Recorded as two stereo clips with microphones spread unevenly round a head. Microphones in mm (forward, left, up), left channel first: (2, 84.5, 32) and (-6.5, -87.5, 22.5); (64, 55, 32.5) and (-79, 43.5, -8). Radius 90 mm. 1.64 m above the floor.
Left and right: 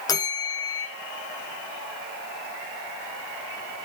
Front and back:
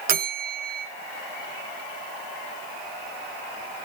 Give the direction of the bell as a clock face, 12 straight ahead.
7 o'clock.